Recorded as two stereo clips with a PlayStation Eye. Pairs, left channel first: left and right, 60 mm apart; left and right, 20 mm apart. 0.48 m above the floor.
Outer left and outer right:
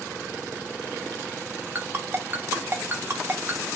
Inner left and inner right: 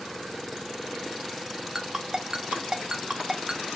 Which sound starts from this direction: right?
A ringtone, at 1.8 s.